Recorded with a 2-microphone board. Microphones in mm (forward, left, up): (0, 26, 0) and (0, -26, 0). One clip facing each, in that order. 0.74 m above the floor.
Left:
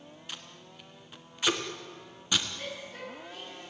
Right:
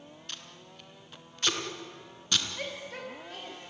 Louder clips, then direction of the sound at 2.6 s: Right 2 dB; 65° right (ahead or behind).